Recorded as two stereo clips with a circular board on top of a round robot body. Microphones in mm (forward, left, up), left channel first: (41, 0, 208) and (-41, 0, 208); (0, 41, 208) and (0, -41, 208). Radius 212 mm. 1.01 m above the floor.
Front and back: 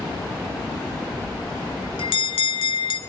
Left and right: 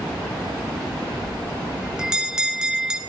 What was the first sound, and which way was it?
A bell, 10° right.